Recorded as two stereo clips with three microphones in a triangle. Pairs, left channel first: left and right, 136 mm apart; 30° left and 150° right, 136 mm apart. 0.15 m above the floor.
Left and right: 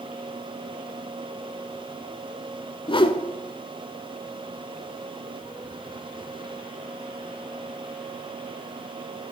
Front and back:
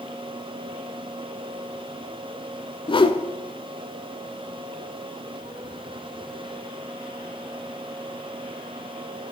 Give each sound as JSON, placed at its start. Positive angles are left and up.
{"t": 2.9, "sound": "a whoosh", "azimuth_deg": 60, "distance_m": 0.5}